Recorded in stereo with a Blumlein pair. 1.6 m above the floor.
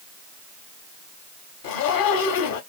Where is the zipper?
50° left, 1.2 m.